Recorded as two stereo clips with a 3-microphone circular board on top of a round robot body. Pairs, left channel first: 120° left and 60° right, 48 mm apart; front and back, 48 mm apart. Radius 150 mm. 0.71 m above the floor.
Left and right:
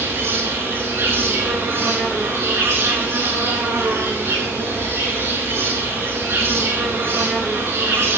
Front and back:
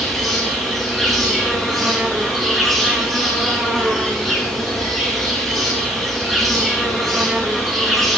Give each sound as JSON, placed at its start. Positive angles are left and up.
{"t": 0.0, "sound": "an insect", "azimuth_deg": -90, "distance_m": 5.0}